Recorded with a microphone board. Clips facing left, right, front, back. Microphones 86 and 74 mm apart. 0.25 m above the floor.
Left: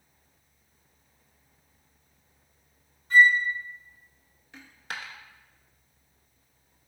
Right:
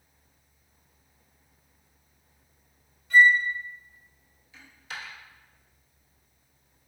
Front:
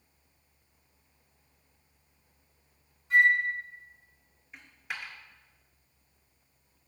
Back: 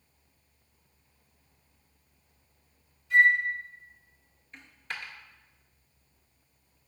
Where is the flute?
40° left, 1.5 m.